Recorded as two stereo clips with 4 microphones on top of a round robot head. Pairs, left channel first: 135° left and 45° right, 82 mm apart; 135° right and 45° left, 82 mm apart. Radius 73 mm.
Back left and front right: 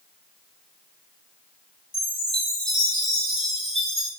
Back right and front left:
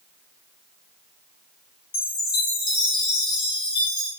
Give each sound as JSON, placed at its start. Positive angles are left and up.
{"t": 1.9, "sound": "a chime", "azimuth_deg": -150, "distance_m": 1.2}